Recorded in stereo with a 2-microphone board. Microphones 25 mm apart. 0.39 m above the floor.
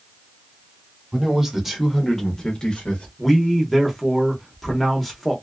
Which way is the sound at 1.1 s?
25° right (ahead or behind).